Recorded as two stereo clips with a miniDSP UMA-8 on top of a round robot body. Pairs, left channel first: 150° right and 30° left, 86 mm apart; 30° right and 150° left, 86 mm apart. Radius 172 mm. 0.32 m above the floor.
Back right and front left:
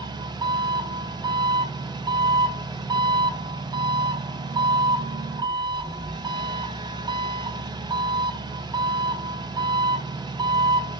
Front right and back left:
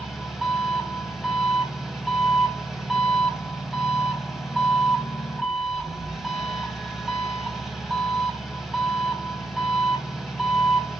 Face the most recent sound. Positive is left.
turn(degrees=65)